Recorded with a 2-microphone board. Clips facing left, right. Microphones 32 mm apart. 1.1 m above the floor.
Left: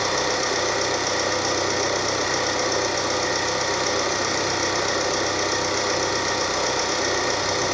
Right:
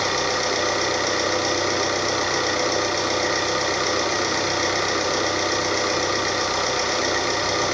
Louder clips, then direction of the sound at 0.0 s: Right 1 dB; 20° right (ahead or behind).